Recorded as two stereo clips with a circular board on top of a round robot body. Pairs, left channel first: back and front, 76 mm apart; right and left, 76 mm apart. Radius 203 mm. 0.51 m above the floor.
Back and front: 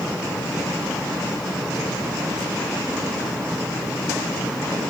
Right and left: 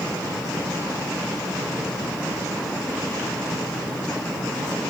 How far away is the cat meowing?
No cat meowing in this recording.